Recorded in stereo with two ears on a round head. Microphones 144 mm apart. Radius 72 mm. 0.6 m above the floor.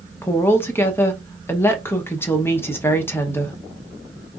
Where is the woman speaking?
15° left (ahead or behind), 0.8 m.